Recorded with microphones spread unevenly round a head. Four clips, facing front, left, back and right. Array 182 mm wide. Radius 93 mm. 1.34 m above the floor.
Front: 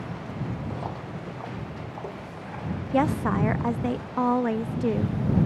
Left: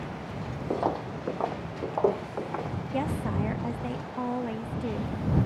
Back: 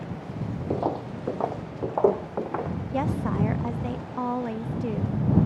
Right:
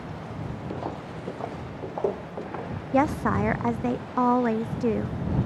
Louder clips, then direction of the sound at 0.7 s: Left 8 dB, back 7 dB; 155° left.